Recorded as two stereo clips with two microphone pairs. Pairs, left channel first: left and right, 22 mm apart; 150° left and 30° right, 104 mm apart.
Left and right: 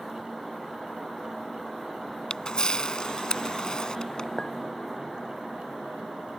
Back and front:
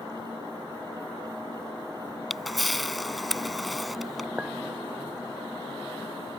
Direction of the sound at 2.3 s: 60° left.